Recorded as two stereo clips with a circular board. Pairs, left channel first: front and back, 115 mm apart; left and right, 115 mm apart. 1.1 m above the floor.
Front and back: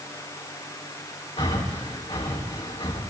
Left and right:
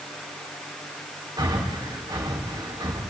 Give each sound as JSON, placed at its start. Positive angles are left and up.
{"t": 1.4, "sound": "breathing", "azimuth_deg": -40, "distance_m": 4.0}